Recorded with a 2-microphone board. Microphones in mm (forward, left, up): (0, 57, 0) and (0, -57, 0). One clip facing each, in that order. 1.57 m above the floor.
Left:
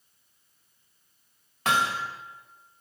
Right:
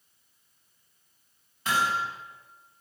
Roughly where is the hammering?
Left.